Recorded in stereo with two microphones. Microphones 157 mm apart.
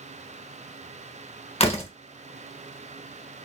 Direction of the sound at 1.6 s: 40° left (ahead or behind).